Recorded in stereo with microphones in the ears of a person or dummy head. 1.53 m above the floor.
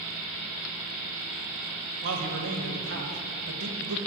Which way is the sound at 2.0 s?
75° right (ahead or behind).